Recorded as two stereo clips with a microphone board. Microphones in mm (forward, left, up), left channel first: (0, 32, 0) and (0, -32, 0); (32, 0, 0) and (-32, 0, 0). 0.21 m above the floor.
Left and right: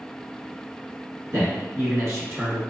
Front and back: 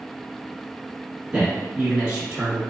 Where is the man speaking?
115° right, 1.5 m; by 2.6 s 105° right, 1.1 m.